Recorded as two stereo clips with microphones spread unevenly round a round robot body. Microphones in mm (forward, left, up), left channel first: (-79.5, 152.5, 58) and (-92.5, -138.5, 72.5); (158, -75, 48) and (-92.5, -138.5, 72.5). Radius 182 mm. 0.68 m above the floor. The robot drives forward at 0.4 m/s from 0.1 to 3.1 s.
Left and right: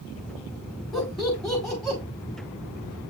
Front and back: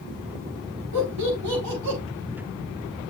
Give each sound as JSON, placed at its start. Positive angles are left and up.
{"t": 0.9, "sound": "laughter", "azimuth_deg": 175, "distance_m": 5.5}